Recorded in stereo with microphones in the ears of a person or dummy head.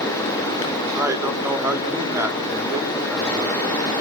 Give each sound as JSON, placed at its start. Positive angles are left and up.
{"t": 0.9, "sound": "a man speaking", "side_deg": -15, "distance_m": 3.5}